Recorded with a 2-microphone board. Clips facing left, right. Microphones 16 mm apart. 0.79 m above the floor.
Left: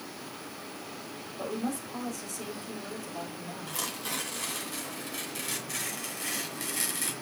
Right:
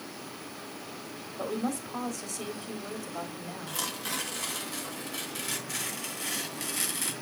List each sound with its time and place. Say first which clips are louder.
1.4 s a woman speaking: right 2 dB; 30° right (ahead or behind), 2.5 m
3.7 s tearing paper: right 1 dB; 10° right (ahead or behind), 2 m